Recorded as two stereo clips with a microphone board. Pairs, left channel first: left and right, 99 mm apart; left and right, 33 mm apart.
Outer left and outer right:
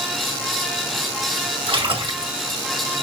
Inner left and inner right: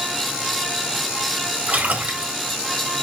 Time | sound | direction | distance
1.7 | a splash | 60° right (ahead or behind) | 1.7 m